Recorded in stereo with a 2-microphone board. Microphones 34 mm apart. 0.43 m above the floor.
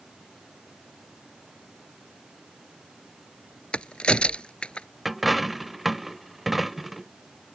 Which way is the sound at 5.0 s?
Centre (ahead or behind).